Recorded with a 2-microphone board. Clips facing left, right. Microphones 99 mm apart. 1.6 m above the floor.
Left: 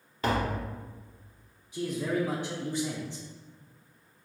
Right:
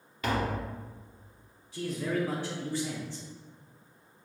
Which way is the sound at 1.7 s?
15° left (ahead or behind).